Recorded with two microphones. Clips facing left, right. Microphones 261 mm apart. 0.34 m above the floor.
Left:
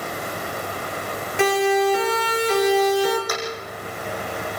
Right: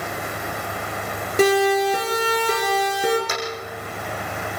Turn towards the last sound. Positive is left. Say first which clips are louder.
# even
turn(degrees=-25)  # may be behind; listen again after turning